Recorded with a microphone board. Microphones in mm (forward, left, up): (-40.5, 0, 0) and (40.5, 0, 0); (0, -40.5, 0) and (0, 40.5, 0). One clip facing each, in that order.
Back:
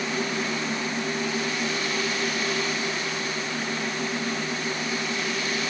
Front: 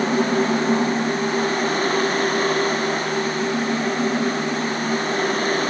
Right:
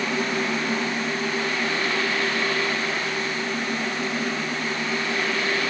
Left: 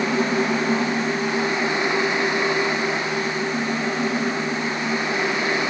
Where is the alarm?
I don't hear an alarm.